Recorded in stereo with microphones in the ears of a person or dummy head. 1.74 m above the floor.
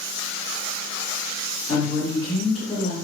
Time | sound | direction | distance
1.7 | a woman speaking | 30° left (ahead or behind) | 1.8 m